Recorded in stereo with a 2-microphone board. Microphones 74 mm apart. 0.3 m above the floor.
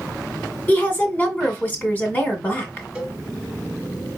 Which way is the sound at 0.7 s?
25° left (ahead or behind).